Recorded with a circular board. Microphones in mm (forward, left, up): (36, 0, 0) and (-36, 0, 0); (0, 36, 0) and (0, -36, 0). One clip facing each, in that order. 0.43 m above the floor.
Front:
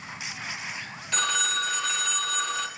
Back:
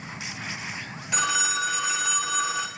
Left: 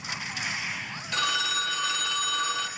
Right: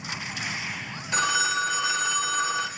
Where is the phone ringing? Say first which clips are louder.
Back 2 dB, right 4 dB; 115° right, 0.6 m.